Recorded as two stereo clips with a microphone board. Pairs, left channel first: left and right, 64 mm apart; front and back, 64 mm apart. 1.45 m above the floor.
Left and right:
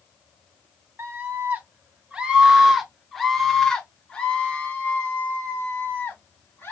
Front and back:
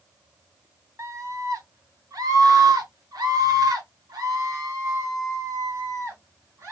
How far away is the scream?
About 1.5 m.